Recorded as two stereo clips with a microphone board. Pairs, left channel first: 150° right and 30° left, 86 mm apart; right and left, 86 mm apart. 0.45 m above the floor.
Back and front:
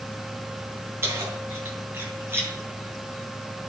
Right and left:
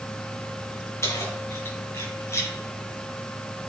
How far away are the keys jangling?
About 3 m.